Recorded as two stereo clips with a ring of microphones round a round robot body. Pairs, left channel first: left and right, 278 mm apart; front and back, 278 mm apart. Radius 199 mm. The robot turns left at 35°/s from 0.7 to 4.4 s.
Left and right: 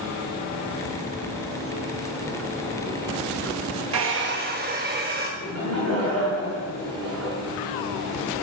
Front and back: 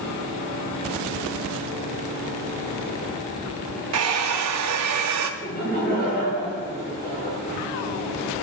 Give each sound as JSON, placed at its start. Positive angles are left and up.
{"t": 3.9, "sound": "a hair dryer", "azimuth_deg": -135, "distance_m": 0.6}
{"t": 5.4, "sound": "laughter", "azimuth_deg": -65, "distance_m": 4.5}